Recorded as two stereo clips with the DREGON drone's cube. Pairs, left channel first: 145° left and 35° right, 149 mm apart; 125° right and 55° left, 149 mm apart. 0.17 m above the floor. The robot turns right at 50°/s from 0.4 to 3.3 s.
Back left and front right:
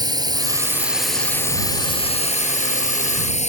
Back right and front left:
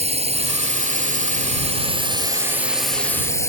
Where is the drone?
25° left; by 3.5 s 170° left.